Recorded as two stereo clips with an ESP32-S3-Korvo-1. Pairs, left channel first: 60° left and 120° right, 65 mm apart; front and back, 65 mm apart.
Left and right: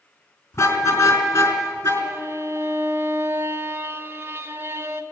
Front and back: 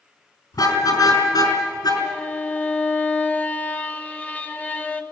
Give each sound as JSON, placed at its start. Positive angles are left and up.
{"t": 0.5, "sound": "a car horn", "azimuth_deg": 10, "distance_m": 4.0}
{"t": 2.0, "sound": "a violin", "azimuth_deg": -65, "distance_m": 1.5}